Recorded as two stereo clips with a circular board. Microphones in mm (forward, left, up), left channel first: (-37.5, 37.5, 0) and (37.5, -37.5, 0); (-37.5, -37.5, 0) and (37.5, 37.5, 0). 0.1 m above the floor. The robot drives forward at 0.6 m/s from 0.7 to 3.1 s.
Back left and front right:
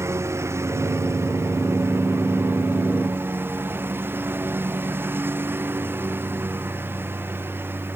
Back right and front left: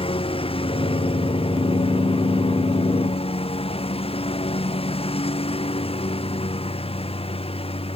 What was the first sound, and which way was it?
A lawn mower, 110° right.